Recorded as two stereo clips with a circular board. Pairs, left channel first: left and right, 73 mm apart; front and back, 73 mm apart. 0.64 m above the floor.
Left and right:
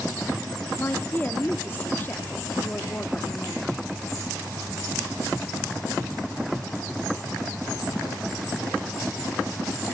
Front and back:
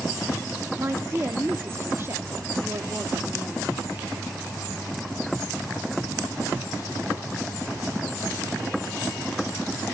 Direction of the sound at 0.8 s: 145° left.